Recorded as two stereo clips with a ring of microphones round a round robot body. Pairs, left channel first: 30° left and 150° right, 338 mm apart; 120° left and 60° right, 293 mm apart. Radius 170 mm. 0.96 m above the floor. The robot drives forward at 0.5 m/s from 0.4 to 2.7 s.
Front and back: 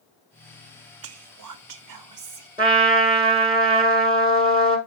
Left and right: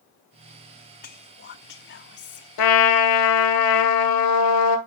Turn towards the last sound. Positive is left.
turn(degrees=135)